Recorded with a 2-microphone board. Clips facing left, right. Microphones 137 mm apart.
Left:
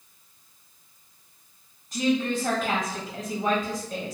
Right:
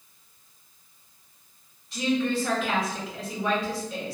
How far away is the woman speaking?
About 1.2 m.